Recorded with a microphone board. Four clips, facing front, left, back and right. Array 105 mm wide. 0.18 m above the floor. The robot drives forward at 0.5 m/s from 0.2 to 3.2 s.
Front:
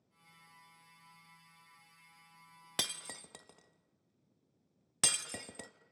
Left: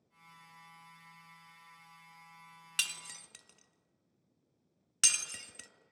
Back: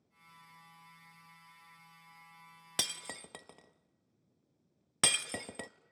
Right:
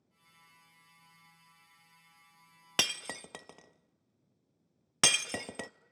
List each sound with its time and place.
2.8 s breaking glass: 95° right, 0.6 m; by 5.7 s 115° right, 0.6 m